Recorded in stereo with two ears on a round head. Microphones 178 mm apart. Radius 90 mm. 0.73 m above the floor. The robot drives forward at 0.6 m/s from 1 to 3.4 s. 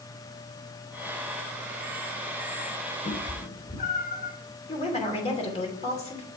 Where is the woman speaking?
30° left (ahead or behind), 3 m.